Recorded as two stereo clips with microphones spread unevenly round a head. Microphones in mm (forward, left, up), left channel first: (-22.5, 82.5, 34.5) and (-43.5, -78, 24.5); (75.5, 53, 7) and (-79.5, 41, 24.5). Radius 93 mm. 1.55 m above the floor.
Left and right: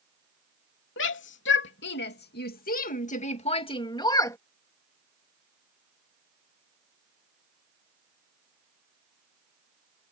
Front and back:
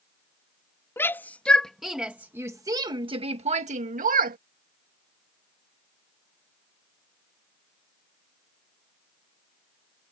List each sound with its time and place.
1.0 s a shout: 80° left; by 4.4 s 155° left